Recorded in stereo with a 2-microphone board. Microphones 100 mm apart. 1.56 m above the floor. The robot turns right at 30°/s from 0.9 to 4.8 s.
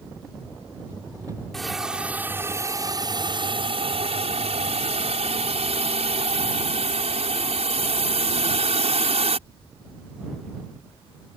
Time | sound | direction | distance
1.5 | a hiss | 175° left | ?